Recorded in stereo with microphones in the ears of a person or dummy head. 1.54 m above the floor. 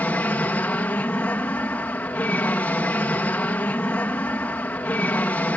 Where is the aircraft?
5° left (ahead or behind).